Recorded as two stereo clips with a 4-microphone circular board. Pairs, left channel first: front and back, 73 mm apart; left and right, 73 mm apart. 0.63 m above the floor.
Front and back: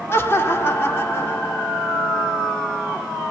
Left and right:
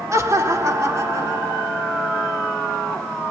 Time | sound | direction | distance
0.1 | laughter | 50° right | 1.4 m